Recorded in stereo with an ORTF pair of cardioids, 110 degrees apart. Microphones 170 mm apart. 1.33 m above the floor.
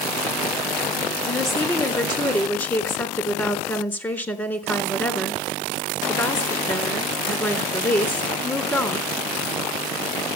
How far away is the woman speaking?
About 3.5 m.